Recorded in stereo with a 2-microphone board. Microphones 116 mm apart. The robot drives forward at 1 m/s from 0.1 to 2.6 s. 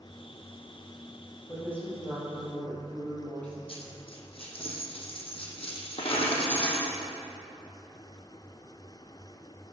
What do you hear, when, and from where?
1.5 s a woman speaking: 15° left (ahead or behind), 3.5 m; by 3.6 s 10° left (ahead or behind), 4.5 m
3.7 s a dropped coin: 55° left (ahead or behind), 1.5 m